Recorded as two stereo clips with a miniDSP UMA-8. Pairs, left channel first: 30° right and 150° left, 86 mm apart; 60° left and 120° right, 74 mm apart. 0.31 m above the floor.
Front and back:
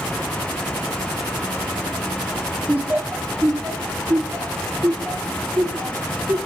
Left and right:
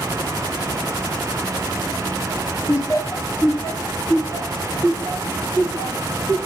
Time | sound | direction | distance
2.7 | laughter | 80° left | 1.3 m